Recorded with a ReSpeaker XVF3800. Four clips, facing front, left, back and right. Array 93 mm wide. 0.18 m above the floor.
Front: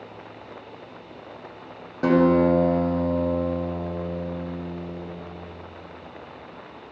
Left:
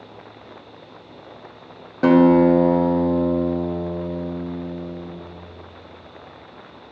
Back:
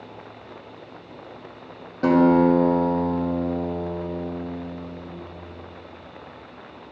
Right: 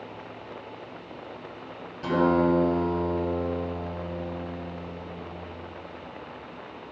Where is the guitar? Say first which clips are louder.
Left 9 dB, back 2 dB; 80° left, 3 m.